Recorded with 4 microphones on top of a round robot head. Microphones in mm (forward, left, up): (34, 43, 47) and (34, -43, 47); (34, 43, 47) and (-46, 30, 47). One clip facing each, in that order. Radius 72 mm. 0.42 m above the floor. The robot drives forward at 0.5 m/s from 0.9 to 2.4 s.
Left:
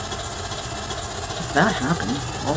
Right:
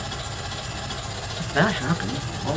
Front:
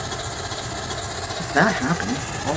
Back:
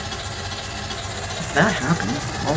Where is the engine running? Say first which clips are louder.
Left 3 dB, front 1 dB; 55° left, 1.3 m; by 2.6 s 115° left, 1.3 m.